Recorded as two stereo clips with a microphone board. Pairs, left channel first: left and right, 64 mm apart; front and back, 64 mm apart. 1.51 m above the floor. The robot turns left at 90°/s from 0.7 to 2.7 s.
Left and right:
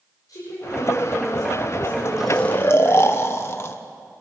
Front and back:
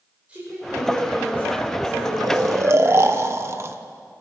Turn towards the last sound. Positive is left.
turn(degrees=135)